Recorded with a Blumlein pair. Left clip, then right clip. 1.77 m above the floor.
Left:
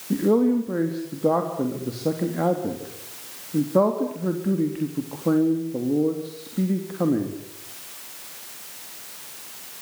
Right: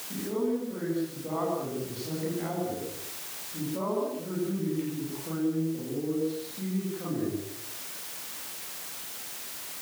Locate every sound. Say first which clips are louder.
0.1 s a man speaking: left 10 dB; 40° left, 3.5 m